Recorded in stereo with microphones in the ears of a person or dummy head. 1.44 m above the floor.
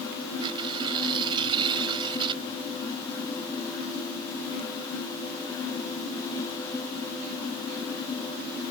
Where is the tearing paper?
25° right (ahead or behind).